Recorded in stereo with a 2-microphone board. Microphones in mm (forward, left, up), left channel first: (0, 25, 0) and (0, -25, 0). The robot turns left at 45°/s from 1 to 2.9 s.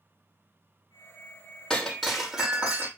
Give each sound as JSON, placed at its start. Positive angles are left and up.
{"t": 1.7, "sound": "breaking glass", "azimuth_deg": 15, "distance_m": 3.0}